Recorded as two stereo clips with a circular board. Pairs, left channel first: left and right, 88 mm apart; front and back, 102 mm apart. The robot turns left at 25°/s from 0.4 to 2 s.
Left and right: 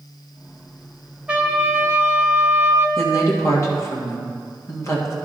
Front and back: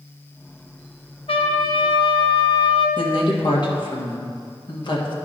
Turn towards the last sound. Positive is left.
turn(degrees=35)